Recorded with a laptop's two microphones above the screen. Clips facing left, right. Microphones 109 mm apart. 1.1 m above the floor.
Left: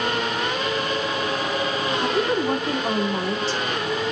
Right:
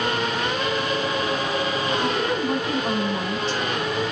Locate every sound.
2.0 s a woman speaking: 35° left (ahead or behind), 2 m